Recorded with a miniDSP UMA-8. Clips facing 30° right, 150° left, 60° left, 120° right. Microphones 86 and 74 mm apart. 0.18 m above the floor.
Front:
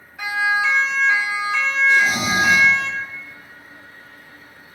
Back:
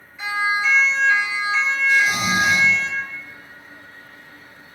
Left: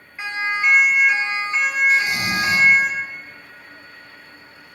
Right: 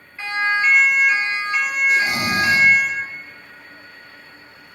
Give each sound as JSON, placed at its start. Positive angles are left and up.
{"t": 0.2, "sound": "a siren", "azimuth_deg": -10, "distance_m": 4.5}
{"t": 1.9, "sound": "snoring", "azimuth_deg": -70, "distance_m": 8.5}